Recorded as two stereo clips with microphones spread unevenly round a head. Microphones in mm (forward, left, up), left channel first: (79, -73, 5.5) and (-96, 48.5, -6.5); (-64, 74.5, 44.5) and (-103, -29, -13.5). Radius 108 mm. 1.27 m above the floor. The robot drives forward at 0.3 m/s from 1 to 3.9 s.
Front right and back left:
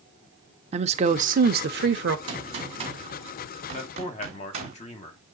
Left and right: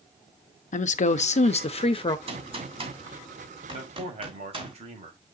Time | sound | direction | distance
0.7 | a woman speaking | 90° left | 0.6 m
2.3 | a gunshot | 150° right | 2 m
3.7 | a man speaking | 90° right | 1.5 m